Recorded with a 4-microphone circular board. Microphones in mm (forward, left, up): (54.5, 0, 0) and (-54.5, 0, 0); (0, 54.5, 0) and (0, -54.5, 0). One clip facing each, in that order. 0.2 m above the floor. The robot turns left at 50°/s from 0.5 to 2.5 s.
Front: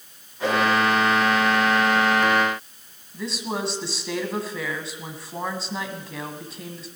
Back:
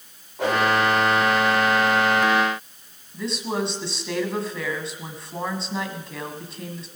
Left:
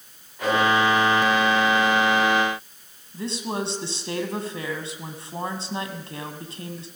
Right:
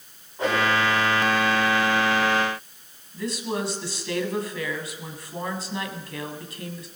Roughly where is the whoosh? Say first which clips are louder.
Even, left 1 dB; behind right.